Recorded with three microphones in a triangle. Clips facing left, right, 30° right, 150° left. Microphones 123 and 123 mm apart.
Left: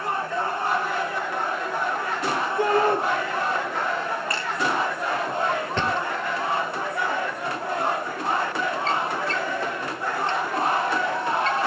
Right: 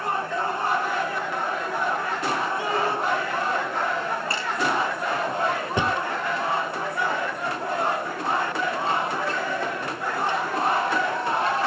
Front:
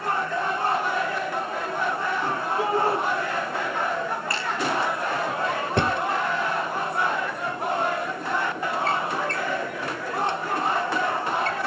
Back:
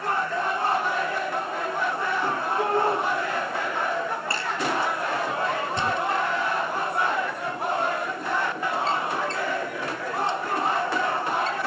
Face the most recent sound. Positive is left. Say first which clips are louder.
# even, front 3 dB
turn(degrees=-10)